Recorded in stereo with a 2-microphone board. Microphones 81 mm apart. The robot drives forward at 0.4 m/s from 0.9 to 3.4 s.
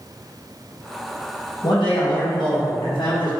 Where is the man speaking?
65° left (ahead or behind), 1.0 m; by 3.3 s 70° left (ahead or behind), 1.0 m.